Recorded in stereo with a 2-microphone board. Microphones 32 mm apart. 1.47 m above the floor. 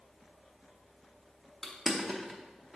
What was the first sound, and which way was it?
Crushing, 15° right (ahead or behind).